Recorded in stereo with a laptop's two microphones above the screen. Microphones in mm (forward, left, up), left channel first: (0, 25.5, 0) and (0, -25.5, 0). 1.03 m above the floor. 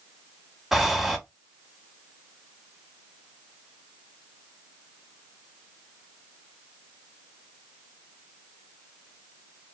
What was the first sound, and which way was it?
Breathing, 5° right (ahead or behind).